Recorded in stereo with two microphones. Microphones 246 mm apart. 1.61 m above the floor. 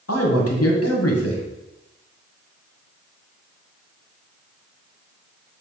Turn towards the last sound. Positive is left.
turn(degrees=70)  # may be behind; listen again after turning